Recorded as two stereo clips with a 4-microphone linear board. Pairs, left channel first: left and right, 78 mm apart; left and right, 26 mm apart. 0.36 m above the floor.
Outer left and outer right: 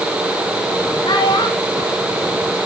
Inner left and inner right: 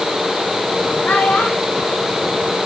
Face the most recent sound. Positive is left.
turn(degrees=60)  # may be behind; listen again after turning